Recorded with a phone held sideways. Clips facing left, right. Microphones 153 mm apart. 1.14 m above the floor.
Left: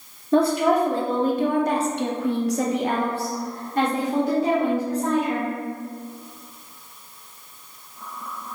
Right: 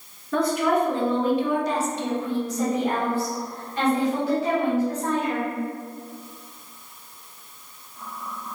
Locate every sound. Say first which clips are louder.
0.3 s a woman speaking: left 3 dB; 25° left (ahead or behind), 1.3 m; by 5.6 s 30° left (ahead or behind), 1.7 m